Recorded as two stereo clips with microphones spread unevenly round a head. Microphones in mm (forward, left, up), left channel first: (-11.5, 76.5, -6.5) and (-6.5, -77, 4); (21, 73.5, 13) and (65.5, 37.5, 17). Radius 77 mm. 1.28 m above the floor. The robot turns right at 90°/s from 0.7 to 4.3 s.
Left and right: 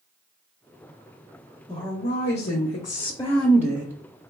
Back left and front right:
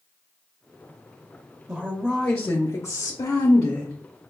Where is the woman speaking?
20° left, 0.8 m; by 3.9 s 140° right, 0.8 m.